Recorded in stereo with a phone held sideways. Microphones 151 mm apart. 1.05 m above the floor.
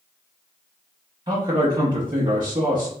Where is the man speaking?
30° right (ahead or behind), 0.9 m.